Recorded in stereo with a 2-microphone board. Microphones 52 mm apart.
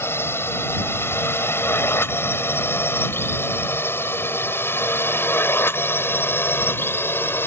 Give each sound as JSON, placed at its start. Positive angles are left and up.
{"t": 0.0, "sound": "a drone", "side_deg": 50}